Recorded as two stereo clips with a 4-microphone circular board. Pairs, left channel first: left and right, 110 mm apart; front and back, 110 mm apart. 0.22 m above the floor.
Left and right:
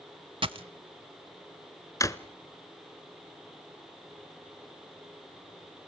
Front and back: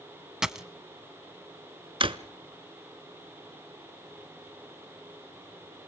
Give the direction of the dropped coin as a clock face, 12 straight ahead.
3 o'clock.